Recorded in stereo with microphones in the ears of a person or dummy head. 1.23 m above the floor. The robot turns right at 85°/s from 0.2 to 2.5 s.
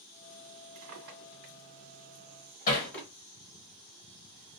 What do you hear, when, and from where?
0.8 s a drawer: 35° right (ahead or behind), 1.6 m; by 3.1 s 15° left (ahead or behind), 1.6 m
2.7 s hammering: 45° left (ahead or behind), 1.1 m